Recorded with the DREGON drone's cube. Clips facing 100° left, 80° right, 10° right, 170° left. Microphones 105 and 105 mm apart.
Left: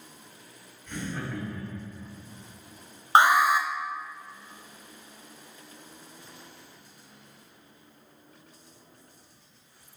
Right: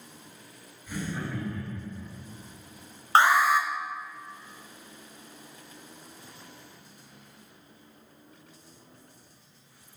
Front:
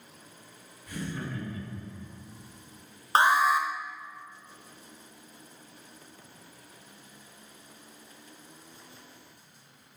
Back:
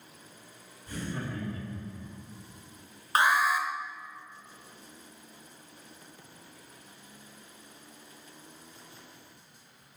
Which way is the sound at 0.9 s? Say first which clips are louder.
Right 1 dB, even; 155° right.